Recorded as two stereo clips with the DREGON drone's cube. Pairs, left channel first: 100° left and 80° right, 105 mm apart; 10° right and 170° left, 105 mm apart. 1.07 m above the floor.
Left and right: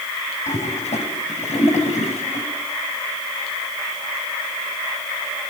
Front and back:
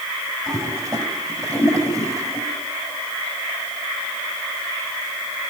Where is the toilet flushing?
110° left, 5 m.